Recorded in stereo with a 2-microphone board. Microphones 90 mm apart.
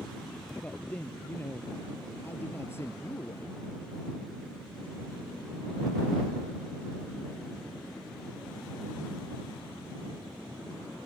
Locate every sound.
0.6 s a man speaking: 15° left (ahead or behind); by 3.6 s 30° left (ahead or behind)